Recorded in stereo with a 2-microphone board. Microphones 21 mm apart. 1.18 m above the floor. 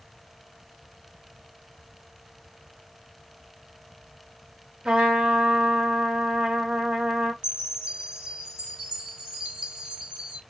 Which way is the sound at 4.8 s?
60° right (ahead or behind).